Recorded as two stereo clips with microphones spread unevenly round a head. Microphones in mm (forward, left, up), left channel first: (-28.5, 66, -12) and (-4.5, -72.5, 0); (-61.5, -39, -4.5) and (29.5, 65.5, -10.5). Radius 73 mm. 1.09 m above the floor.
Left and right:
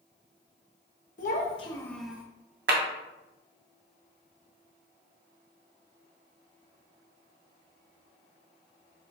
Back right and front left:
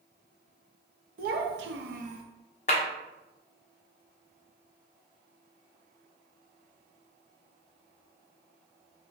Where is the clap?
85° right, 0.9 m.